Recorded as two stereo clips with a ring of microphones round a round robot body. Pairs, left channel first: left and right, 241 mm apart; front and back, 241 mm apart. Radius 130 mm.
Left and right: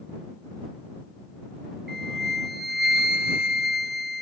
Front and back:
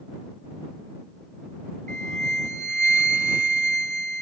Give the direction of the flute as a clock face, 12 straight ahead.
4 o'clock.